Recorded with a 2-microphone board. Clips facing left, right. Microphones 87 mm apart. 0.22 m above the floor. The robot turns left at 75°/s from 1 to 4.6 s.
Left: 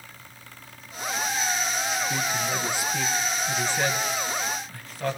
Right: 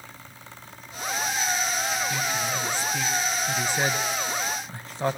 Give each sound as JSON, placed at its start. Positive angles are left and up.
{"t": 2.1, "sound": "a man speaking", "side_deg": 25, "distance_m": 1.0}